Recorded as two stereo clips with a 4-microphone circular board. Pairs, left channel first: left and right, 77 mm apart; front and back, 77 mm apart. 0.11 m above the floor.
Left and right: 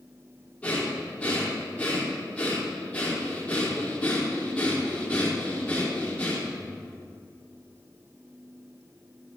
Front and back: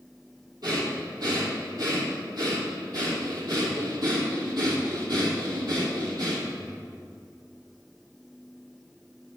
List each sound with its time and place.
0.6 s breathing: 165° left, 2.5 m